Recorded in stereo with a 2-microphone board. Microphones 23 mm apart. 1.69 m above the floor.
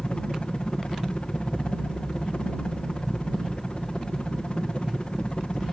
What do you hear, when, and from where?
0.0 s a helicopter: 55° left (ahead or behind)